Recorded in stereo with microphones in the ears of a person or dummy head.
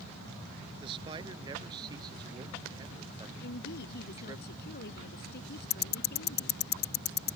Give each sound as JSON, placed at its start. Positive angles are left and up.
{"t": 0.8, "sound": "a man speaking", "side_deg": -25}
{"t": 3.4, "sound": "a woman speaking", "side_deg": 60}
{"t": 5.7, "sound": "ticking", "side_deg": 45}